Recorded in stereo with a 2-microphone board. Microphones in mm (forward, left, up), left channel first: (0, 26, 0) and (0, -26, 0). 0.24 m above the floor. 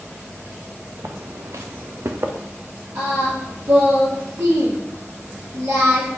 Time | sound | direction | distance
1.0 | footsteps | 70° right (ahead or behind) | 0.8 m
3.0 | singing | 75° right (ahead or behind) | 3.5 m